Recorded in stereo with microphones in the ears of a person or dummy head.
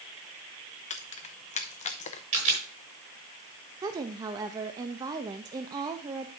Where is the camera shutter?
35° right (ahead or behind), 5 m.